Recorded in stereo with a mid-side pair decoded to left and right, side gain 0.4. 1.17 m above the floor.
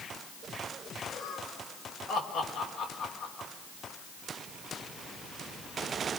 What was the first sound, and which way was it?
Laughter, 70° left.